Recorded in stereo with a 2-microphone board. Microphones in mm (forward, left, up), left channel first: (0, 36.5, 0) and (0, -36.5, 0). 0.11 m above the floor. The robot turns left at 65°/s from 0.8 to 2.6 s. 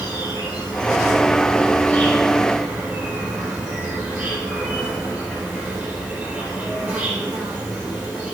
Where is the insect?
100° left, 4.5 m; by 8.3 s 15° right, 4.5 m.